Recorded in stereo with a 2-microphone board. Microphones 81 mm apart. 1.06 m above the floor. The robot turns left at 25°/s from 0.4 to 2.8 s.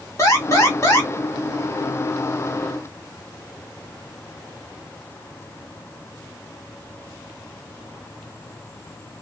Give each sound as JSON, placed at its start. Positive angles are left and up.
{"t": 0.2, "sound": "an alarm", "side_deg": 40, "distance_m": 1.0}